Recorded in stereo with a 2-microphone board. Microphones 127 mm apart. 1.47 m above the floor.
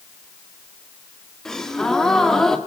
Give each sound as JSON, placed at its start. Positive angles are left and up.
{"t": 1.4, "sound": "a gasp", "side_deg": 5, "distance_m": 2.0}